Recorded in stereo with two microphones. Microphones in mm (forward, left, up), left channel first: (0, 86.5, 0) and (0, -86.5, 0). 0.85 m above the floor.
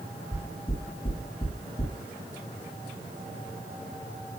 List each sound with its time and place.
0.3 s knocking: 35° left (ahead or behind), 9.5 m